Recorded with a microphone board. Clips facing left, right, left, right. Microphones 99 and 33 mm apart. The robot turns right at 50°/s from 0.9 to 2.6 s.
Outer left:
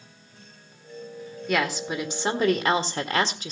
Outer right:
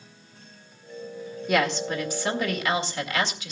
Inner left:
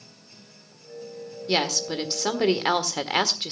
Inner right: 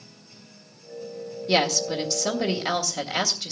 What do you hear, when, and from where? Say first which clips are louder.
1.5 s a woman speaking: outer right 2 dB, inner right 2 dB; 5° right, 1.6 m; by 3.5 s 50° left, 1.6 m